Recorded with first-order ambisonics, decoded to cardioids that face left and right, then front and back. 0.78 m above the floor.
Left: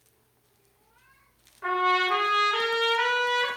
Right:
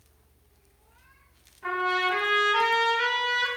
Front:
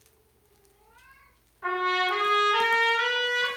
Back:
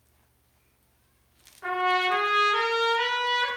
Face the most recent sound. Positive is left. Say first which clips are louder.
# left 2 dB, back 1 dB
turn(degrees=110)